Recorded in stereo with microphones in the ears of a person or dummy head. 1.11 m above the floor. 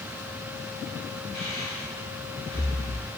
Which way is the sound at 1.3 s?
5° left (ahead or behind).